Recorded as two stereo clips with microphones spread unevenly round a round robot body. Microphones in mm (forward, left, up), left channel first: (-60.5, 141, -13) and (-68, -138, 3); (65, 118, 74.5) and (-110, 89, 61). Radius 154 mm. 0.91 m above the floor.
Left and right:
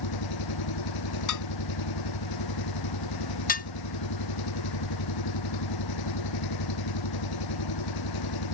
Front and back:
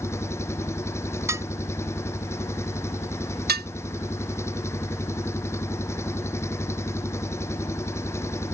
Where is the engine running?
85° left.